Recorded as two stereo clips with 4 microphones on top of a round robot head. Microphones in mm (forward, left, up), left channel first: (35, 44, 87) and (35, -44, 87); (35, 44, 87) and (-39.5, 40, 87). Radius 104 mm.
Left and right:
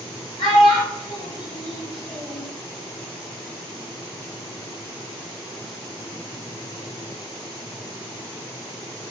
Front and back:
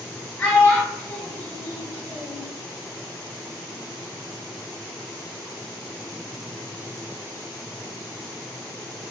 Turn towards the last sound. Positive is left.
turn(degrees=75)